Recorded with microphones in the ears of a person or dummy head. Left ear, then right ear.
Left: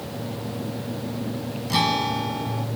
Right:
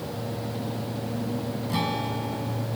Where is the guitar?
25° left (ahead or behind).